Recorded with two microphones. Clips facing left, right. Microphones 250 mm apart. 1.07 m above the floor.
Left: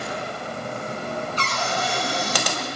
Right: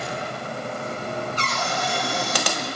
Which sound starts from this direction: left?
A cupboard door, at 1.4 s.